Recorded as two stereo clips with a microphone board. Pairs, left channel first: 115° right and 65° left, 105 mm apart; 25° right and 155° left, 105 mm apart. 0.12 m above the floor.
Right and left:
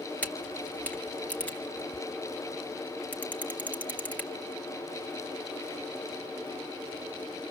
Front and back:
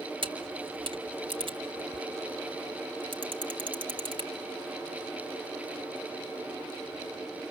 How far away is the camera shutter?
About 2 m.